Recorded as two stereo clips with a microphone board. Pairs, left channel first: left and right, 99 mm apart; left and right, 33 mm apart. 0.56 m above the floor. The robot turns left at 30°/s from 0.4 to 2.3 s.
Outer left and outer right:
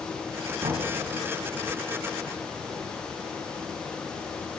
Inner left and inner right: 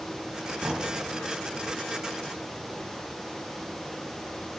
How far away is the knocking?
About 2.5 m.